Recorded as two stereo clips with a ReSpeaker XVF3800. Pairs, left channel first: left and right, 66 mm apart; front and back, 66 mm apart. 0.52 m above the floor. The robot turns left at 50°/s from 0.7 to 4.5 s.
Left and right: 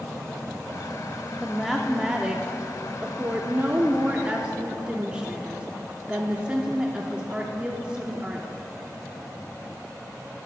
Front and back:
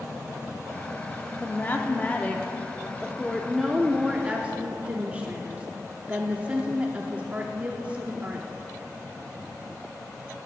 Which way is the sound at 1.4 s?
10° left.